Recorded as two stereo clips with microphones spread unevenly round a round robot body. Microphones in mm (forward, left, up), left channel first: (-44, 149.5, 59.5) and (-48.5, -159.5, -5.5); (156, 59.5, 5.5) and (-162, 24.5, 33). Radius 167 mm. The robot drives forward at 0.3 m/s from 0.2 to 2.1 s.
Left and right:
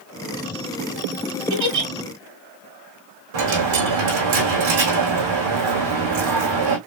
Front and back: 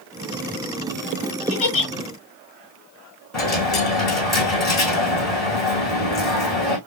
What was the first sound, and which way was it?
A giggle, 60° right.